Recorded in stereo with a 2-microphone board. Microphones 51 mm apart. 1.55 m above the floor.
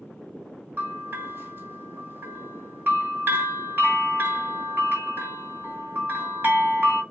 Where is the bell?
45° right (ahead or behind), 2.5 m.